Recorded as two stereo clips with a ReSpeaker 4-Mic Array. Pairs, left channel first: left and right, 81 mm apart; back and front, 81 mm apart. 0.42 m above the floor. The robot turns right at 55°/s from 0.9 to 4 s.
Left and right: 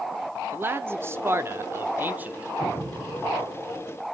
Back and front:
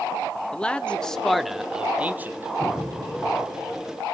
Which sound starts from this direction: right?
An explosion, at 2.6 s.